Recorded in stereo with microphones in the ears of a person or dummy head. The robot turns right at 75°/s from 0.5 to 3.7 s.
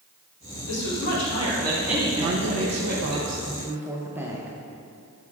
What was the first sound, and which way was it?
A woman speaking, 95° left.